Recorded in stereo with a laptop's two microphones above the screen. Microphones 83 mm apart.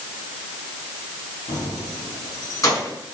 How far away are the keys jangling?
About 3.5 m.